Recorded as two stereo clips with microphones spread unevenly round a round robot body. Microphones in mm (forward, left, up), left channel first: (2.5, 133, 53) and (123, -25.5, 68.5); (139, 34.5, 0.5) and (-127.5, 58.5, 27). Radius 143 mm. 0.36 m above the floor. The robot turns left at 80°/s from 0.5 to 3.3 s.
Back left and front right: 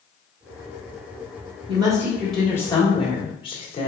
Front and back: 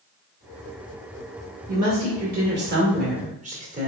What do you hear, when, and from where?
1.7 s a woman speaking: 100° right, 1.3 m; by 3.9 s 130° left, 1.3 m